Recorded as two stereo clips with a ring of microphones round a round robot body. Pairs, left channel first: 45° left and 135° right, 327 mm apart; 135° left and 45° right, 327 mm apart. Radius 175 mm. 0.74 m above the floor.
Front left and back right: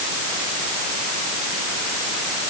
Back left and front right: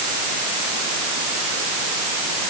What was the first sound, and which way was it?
Only background noise.